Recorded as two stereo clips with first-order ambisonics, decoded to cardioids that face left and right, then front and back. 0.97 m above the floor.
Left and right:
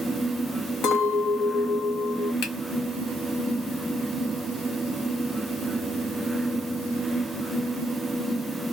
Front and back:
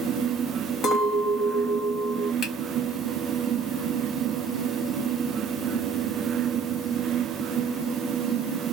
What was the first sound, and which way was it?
A clink, 50° left.